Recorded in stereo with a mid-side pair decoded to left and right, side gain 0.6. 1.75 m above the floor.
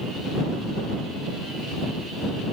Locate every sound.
Only background noise.